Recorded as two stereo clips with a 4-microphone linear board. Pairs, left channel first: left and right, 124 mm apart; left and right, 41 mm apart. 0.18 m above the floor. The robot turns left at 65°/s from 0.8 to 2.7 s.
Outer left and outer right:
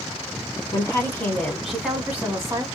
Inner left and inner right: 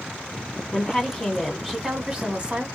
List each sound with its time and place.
0.7 s a woman speaking: 60° left, 1.1 m; by 2.6 s 60° right, 1.1 m